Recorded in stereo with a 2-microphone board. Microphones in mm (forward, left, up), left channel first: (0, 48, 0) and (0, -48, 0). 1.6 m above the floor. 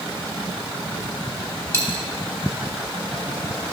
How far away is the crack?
No crack in this recording.